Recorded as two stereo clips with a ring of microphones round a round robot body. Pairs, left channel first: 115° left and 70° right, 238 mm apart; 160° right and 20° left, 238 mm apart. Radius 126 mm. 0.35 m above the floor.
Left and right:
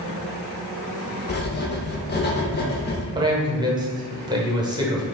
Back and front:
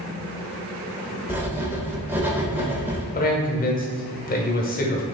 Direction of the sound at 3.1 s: 130° right.